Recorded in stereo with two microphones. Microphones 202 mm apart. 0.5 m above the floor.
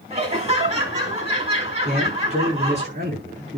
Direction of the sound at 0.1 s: 30° right (ahead or behind).